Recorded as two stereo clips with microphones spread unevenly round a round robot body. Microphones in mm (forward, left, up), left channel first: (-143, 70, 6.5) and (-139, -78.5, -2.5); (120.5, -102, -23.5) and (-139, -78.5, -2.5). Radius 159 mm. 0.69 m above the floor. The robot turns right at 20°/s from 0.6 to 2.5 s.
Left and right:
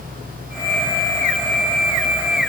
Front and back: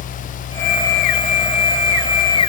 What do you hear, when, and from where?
Only background noise.